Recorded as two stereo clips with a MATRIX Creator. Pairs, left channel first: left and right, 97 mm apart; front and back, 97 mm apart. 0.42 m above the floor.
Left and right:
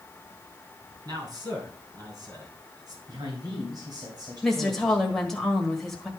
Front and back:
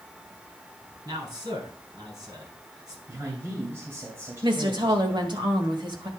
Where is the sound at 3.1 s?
120° right, 2.5 m.